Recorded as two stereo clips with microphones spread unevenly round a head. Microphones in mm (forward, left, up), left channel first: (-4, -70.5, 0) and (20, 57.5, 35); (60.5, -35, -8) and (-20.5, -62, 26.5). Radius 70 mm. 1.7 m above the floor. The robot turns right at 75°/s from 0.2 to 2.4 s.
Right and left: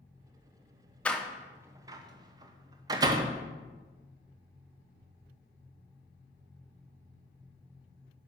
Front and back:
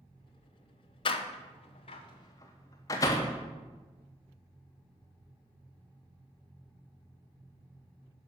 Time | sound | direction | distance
1.1 | a door slam | 5° right | 0.7 m